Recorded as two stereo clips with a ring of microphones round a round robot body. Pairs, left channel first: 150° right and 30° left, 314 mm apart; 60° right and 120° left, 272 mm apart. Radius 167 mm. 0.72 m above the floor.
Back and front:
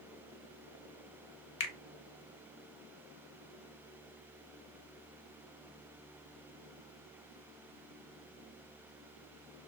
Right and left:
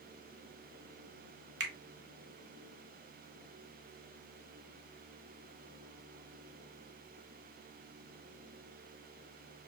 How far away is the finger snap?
About 0.6 m.